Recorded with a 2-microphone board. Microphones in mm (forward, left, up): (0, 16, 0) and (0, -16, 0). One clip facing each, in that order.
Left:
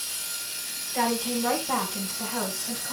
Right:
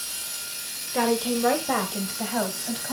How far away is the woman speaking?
About 1.7 m.